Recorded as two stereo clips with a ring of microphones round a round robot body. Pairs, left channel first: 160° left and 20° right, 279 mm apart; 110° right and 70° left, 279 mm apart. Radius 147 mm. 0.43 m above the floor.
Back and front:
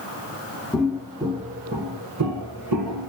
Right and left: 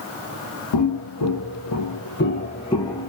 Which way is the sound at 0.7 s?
115° right.